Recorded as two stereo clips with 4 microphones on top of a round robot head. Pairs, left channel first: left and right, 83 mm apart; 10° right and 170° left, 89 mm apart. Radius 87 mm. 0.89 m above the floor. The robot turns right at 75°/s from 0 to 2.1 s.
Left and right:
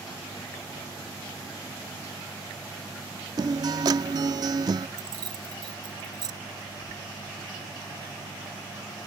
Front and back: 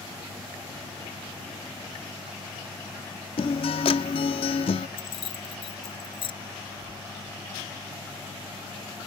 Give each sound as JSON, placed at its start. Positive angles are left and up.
{"t": 3.4, "sound": "a guitar", "azimuth_deg": -40}
{"t": 5.0, "sound": "keys jangling", "azimuth_deg": -45}